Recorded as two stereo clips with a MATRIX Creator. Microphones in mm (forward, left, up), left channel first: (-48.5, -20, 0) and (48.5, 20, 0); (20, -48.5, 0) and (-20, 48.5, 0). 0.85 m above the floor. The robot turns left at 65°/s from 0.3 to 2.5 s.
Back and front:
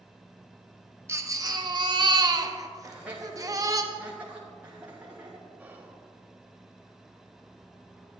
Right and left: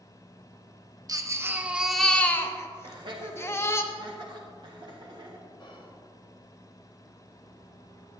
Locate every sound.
1.1 s a baby crying: 75° left, 0.6 m; by 3.8 s 15° right, 0.6 m
2.8 s laughter: 95° left, 1.3 m
5.6 s whispering: 50° right, 1.1 m